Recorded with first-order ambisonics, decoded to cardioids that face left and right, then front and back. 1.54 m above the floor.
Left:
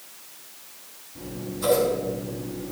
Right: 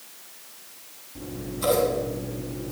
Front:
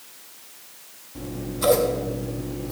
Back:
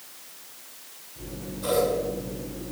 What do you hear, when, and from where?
1.1 s scissors: 15° right, 3 m